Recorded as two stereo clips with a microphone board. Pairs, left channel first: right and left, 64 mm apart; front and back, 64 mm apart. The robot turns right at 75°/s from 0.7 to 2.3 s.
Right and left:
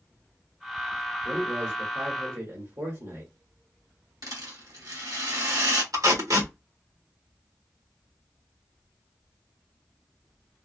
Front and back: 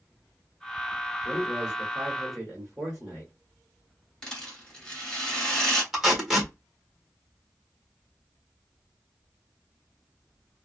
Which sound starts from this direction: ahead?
A man speaking, at 1.2 s.